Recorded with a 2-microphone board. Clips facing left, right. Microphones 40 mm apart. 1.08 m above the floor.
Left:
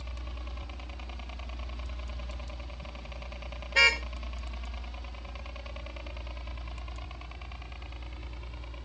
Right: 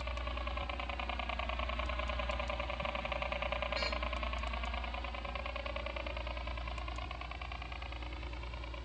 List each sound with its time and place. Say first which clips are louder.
0.0 s a helicopter: right 5 dB; 30° right (ahead or behind); by 8.9 s 5° right (ahead or behind)
3.8 s a car horn: left 14 dB; 80° left